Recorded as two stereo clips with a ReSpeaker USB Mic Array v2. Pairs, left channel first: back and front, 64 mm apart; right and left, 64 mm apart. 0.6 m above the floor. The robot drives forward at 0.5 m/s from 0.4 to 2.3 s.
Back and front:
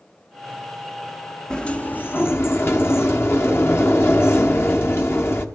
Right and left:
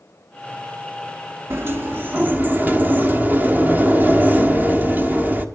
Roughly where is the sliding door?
Left.